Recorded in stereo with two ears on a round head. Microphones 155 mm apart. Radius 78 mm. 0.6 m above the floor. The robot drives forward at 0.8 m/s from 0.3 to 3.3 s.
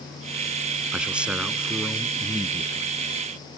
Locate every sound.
0.9 s a man speaking: 5° right (ahead or behind)